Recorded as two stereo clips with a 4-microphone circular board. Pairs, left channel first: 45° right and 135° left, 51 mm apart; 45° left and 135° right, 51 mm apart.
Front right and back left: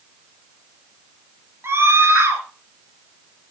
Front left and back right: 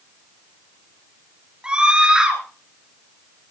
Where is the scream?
155° left, 3.5 m.